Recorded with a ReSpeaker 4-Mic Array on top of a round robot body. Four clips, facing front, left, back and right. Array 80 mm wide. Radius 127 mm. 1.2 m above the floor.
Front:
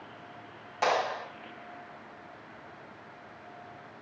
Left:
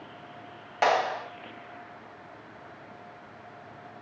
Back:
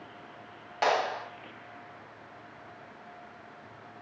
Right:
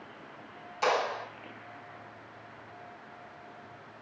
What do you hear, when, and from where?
0.8 s a clap: 110° left, 3 m